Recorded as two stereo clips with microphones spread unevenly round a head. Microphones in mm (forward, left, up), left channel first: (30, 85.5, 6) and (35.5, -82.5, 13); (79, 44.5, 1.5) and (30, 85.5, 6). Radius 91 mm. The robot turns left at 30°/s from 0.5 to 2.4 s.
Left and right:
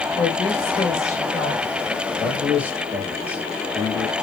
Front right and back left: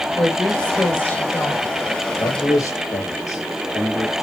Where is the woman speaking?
35° left, 3 m; by 1.6 s 5° left, 3 m.